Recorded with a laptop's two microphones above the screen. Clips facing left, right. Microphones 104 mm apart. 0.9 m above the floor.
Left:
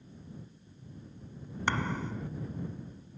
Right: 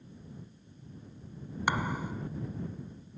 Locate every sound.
1.7 s a thud: 10° right (ahead or behind)